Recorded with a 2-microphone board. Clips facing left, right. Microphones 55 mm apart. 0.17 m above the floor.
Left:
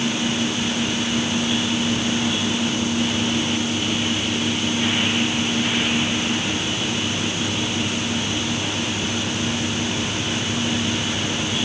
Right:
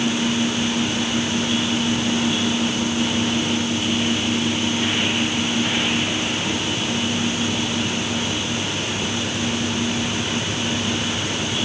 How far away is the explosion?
No explosion in this recording.